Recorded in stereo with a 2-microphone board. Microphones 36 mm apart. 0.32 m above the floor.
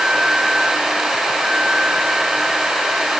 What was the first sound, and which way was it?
Only background noise.